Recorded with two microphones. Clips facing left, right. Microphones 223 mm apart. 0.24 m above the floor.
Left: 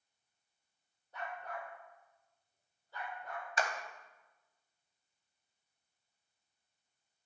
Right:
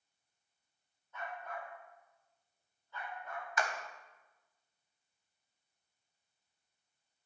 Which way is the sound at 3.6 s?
30° left (ahead or behind).